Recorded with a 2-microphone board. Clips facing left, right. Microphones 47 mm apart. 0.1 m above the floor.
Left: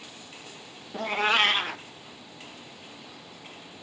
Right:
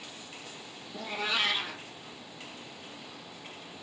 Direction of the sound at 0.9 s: 55° left (ahead or behind).